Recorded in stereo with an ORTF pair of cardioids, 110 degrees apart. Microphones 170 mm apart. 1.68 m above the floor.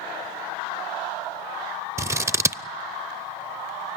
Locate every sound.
2.0 s scissors: 15° right, 0.5 m